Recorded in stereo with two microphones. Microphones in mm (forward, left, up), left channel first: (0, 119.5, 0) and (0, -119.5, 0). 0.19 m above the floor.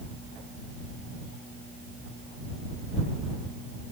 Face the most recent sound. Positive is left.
No sound to turn to.